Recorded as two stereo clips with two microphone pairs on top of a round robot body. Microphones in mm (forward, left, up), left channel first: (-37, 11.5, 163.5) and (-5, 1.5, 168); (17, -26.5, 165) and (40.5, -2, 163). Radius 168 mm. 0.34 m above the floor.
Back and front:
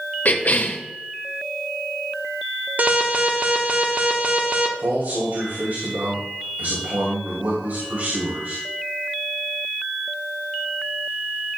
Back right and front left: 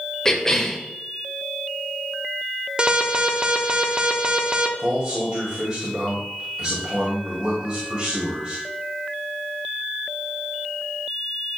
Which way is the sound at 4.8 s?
20° right.